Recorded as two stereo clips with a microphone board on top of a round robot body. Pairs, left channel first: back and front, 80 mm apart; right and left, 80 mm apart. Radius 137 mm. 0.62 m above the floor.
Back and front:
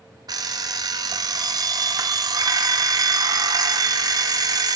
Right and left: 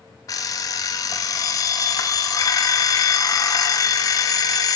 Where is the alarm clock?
45° right, 0.6 m.